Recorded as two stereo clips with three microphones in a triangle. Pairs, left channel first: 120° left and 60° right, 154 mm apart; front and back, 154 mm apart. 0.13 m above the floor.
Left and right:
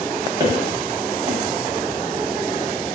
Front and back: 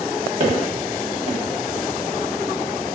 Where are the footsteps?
125° right, 1.2 m.